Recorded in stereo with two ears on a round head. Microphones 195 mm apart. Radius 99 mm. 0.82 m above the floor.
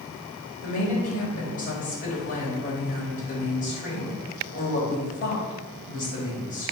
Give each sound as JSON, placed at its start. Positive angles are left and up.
{"t": 0.6, "sound": "a woman speaking", "side_deg": 35, "distance_m": 4.5}